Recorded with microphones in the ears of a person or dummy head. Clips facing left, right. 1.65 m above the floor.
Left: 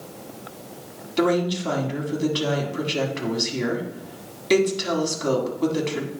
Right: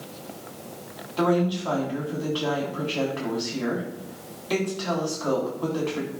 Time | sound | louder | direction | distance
1.2 | a woman speaking | left 1 dB | 35° left (ahead or behind) | 1.8 m